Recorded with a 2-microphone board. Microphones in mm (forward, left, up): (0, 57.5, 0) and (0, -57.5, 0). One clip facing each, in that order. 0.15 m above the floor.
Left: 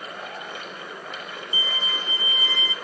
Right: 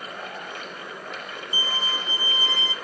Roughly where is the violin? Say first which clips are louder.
Right 2 dB; right.